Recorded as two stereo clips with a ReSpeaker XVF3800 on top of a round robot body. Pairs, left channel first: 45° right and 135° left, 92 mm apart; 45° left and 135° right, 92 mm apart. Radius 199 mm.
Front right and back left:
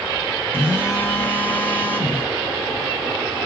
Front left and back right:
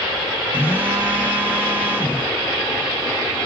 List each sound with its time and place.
0.5 s a phone buzzing: 80° right, 1.4 m